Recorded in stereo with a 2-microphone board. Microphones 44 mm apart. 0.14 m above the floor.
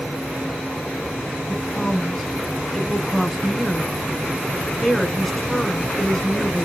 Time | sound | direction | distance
1.5 | a woman speaking | 5° left (ahead or behind) | 1.1 m